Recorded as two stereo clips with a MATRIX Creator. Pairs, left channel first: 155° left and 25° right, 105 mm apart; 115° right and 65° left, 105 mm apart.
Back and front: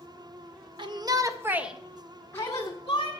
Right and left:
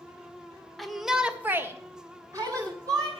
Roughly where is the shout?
Ahead right.